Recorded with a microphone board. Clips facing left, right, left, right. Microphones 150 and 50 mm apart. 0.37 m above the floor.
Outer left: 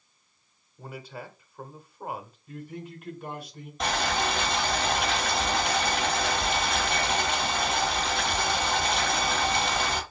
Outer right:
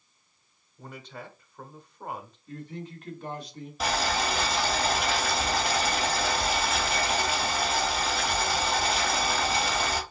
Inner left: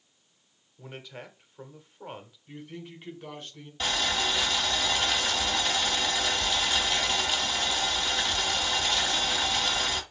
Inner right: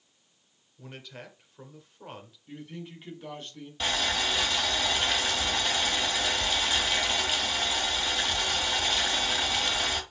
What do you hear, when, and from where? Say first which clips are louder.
0.8 s a man speaking: outer left 2 dB, inner left 2 dB; 5° left (ahead or behind), 1.1 m
2.5 s a man speaking: even, even; 10° left (ahead or behind), 2.5 m
3.8 s boiling: even, even; 5° right (ahead or behind), 2.5 m